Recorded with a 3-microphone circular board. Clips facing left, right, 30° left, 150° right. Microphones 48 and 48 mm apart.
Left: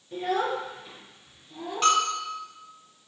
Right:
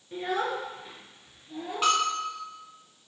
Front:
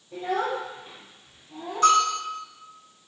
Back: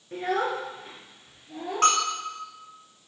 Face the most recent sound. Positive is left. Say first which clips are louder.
# left 2 dB, front 4 dB
turn(degrees=-170)